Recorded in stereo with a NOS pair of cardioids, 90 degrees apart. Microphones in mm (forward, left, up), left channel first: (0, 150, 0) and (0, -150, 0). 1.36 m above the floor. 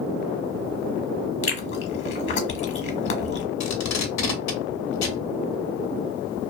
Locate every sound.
1.4 s chewing: 40° left, 1.2 m
3.6 s tape being pulled: 60° left, 1.0 m